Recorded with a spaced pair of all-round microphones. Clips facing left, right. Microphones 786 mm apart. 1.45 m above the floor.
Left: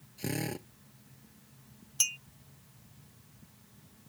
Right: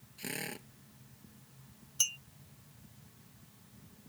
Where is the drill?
70° left (ahead or behind).